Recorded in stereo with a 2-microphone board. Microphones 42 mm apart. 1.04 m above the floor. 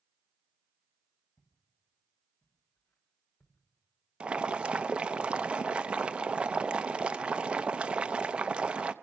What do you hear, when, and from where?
1.4 s footsteps: 80° left, 6.5 m; by 4.5 s 70° left (ahead or behind), 5 m
4.2 s boiling: 25° right (ahead or behind), 0.6 m